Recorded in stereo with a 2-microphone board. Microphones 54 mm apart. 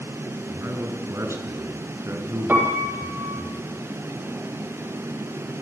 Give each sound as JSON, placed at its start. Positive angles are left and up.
{"t": 0.5, "sound": "a man speaking", "side_deg": -55, "distance_m": 6.5}
{"t": 2.5, "sound": "a piano", "side_deg": -35, "distance_m": 6.5}